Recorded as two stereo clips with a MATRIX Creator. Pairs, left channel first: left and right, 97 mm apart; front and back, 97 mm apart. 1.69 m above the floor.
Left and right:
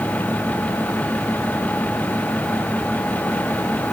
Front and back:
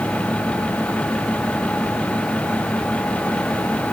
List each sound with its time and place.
Only background noise.